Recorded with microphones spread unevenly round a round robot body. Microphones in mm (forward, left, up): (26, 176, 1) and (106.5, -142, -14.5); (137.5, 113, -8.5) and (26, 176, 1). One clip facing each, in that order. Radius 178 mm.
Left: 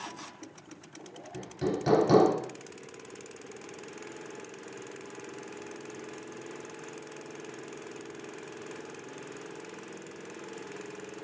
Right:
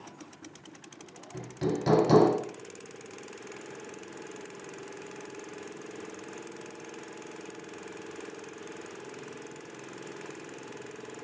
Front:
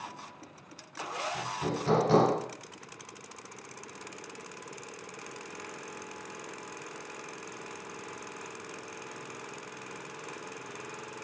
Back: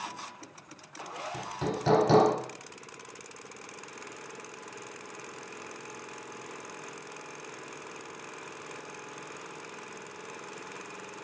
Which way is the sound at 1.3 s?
165° right.